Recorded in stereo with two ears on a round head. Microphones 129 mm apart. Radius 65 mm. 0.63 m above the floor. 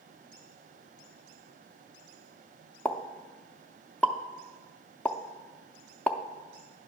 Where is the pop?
10° left (ahead or behind), 0.5 m.